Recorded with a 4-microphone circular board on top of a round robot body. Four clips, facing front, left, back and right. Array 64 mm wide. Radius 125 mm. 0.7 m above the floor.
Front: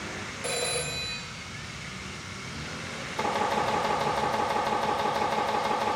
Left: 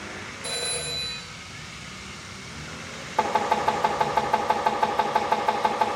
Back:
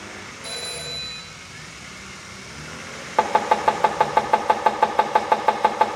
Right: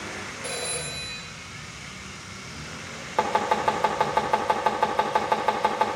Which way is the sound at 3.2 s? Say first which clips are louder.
Even, back 8 dB; 165° right.